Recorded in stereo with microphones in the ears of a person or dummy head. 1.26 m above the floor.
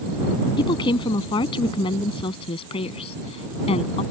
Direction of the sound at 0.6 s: 30° left (ahead or behind).